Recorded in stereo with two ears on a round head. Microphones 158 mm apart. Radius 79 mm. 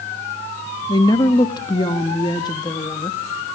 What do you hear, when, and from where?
0.9 s a woman speaking: 25° left (ahead or behind), 1.0 m